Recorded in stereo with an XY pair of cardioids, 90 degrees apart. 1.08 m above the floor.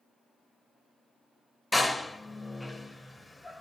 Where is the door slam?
15° left, 0.9 m.